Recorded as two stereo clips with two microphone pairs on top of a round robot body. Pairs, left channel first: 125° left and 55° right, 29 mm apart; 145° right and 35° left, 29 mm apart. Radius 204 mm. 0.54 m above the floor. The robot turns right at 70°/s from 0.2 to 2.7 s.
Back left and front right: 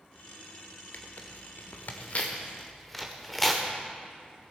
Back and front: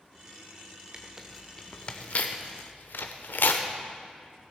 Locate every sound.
0.9 s tearing paper: 85° left, 0.5 m; by 3.7 s 150° right, 0.5 m